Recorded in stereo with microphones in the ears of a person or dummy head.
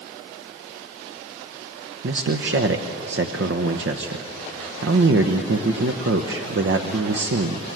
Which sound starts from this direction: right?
A man speaking, at 2.0 s.